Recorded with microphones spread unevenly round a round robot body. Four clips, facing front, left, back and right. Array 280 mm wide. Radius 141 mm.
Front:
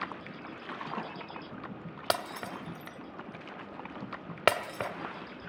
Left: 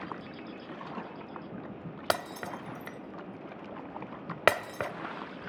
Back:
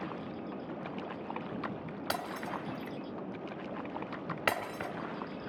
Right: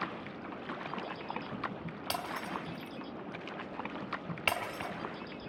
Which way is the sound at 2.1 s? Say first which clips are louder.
Left 5 dB, front 4 dB; 55° left.